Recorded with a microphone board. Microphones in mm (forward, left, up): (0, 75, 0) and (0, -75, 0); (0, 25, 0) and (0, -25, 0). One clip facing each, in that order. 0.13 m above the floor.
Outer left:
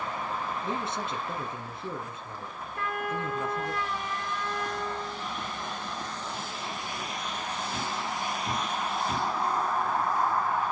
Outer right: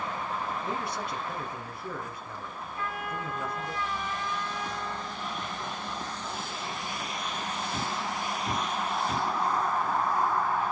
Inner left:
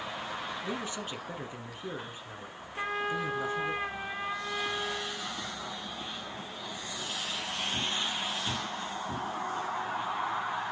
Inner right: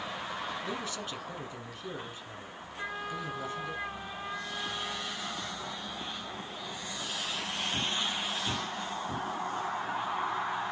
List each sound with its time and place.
0.6 s a man speaking: 25° left (ahead or behind), 1.5 m
2.8 s a trumpet: 60° left (ahead or behind), 3 m